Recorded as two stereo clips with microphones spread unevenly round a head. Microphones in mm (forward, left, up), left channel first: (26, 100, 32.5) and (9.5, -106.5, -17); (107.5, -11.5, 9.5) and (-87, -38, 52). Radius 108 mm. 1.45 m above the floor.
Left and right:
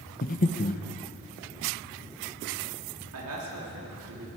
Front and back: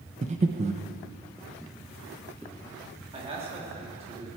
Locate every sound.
0.2 s breathing: 130° left, 0.9 m
3.1 s a man speaking: 110° right, 3 m